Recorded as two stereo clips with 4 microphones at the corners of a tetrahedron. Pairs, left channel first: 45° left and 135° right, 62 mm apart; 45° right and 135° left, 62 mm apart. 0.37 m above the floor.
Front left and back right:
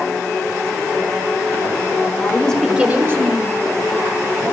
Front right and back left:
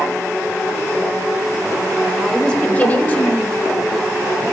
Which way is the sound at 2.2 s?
40° left.